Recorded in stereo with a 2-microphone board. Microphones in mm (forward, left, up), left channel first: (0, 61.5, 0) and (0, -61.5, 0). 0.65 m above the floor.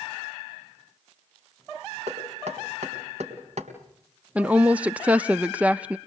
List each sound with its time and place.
2.1 s knocking: 65° right (ahead or behind), 4 m
4.3 s a woman speaking: 10° right (ahead or behind), 0.5 m